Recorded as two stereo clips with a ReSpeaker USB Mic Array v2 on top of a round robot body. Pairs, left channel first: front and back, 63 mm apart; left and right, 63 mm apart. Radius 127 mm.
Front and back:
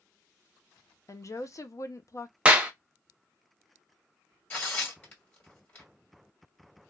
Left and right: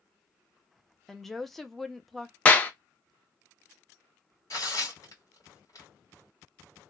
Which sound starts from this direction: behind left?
A clap, at 2.5 s.